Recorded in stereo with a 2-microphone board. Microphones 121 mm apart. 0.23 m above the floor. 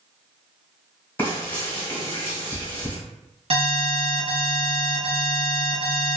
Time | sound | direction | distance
1.2 | frying | 15° left (ahead or behind) | 1.4 m
3.5 | an alarm | 50° right (ahead or behind) | 1.1 m